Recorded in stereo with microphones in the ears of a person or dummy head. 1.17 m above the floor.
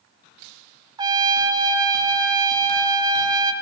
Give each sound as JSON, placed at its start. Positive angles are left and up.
{"t": 1.0, "sound": "a trumpet", "side_deg": -20, "distance_m": 0.6}